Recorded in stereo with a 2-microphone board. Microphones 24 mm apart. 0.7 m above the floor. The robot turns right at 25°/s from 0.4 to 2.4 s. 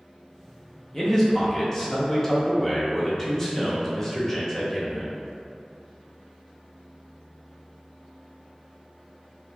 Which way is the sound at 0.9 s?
20° left (ahead or behind).